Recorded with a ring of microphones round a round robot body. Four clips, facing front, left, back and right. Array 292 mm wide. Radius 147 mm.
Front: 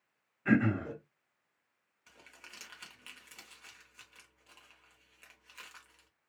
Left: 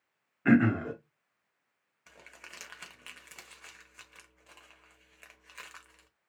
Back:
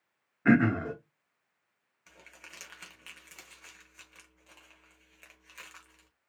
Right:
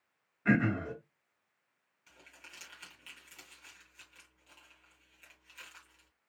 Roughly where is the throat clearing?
Behind left.